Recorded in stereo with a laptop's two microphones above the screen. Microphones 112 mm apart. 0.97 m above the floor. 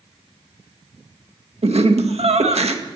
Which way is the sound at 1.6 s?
70° right (ahead or behind).